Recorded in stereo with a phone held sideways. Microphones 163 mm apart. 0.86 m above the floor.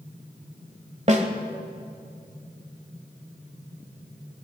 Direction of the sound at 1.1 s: 45° right (ahead or behind).